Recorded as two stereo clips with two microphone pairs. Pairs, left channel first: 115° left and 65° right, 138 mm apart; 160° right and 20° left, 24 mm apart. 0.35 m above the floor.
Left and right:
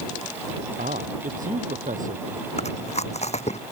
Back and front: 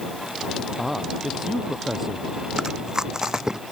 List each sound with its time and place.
0.8 s a man speaking: 60° right; by 2.3 s 55° right
2.6 s chewing: 80° left